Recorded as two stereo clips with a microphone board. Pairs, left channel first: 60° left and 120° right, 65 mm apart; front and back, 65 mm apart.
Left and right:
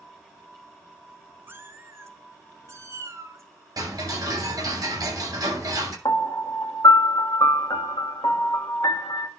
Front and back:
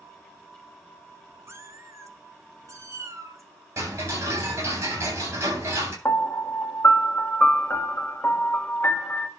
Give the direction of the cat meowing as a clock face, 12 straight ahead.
5 o'clock.